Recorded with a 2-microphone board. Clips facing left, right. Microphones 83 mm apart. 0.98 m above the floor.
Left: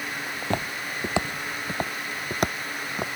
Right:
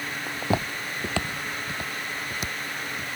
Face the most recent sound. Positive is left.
turn(degrees=65)  # may be behind; listen again after turning